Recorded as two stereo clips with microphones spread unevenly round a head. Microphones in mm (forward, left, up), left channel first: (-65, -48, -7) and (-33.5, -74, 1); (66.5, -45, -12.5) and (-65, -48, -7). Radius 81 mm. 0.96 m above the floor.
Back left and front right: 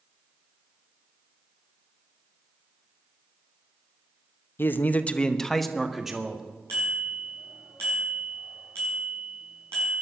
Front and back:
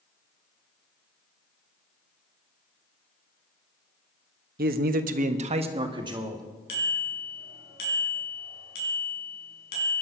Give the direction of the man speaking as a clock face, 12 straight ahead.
7 o'clock.